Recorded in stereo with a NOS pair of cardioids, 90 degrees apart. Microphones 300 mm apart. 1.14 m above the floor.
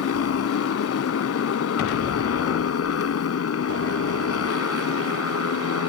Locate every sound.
0.0 s a motorcycle: 55° left